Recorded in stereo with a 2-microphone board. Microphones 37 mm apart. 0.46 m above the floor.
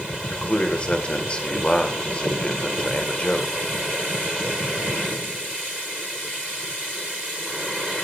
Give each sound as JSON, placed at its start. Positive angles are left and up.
{"t": 0.2, "sound": "a man speaking", "side_deg": 35, "distance_m": 1.6}